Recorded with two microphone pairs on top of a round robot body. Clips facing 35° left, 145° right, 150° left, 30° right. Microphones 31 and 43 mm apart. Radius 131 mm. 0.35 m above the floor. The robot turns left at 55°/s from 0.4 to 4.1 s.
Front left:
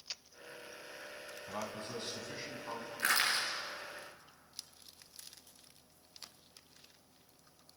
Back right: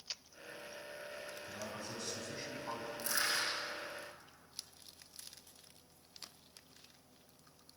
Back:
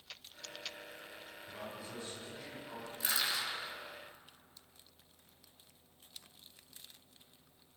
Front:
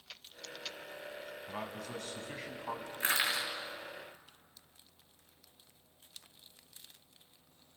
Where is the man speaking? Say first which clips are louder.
Front left 6 dB, front 4 dB; 5° left, 4.5 m; by 2.9 s 75° right, 4.5 m.